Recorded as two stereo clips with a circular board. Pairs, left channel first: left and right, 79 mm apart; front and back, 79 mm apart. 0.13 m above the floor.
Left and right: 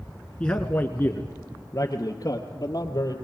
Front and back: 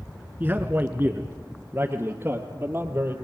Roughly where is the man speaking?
Behind left.